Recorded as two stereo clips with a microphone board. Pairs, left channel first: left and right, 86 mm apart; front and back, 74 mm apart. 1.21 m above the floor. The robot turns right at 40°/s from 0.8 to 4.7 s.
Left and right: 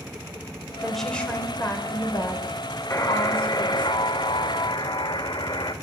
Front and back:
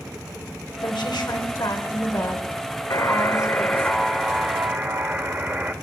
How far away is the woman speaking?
About 4 m.